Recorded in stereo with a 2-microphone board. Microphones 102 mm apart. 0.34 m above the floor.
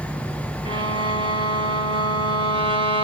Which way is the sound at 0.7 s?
60° right (ahead or behind).